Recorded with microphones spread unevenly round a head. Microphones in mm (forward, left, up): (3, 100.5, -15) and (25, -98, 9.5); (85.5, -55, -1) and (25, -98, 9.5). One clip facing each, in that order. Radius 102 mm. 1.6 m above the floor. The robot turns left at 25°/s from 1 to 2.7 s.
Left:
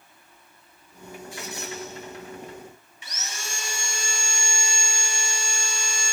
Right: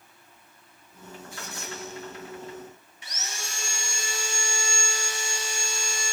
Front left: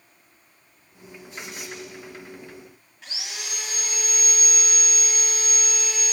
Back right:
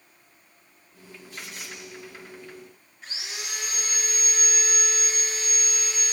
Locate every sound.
1.3 s a squeak: 70° left, 6 m; by 1.8 s 60° left, 6 m
3.0 s sawing: 80° left, 3.5 m